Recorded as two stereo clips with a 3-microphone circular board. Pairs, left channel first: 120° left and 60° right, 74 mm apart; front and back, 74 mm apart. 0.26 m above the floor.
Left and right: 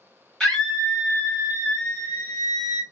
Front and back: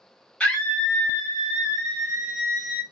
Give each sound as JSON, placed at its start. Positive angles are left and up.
{"t": 0.4, "sound": "a scream", "azimuth_deg": 55, "distance_m": 1.6}